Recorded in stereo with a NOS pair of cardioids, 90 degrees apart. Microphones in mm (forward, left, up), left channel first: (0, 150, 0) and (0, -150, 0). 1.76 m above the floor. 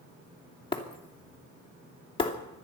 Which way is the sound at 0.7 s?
15° left.